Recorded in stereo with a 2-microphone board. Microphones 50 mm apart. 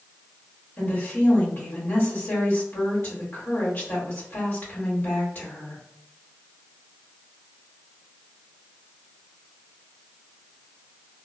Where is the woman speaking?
50° left (ahead or behind), 1.4 m.